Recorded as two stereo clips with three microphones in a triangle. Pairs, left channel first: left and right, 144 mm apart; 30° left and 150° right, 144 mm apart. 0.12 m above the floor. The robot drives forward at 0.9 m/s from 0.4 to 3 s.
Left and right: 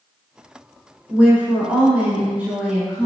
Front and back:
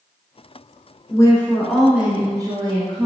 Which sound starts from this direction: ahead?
A woman speaking, at 1.1 s.